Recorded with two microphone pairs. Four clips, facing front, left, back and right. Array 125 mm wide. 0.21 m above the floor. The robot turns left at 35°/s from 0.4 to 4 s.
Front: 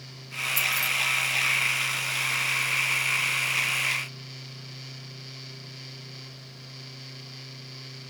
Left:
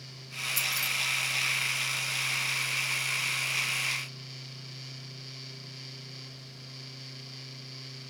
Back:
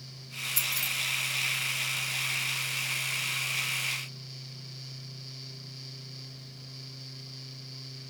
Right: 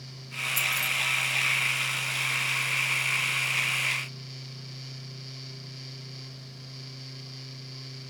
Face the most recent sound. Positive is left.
turn(degrees=-150)